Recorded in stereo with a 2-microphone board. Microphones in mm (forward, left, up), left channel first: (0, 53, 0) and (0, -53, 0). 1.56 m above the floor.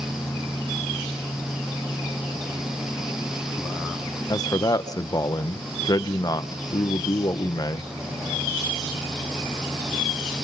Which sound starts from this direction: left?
A man speaking, at 4.3 s.